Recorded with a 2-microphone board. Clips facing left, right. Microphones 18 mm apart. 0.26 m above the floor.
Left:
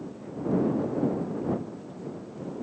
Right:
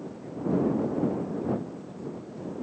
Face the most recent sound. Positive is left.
No sound to turn to.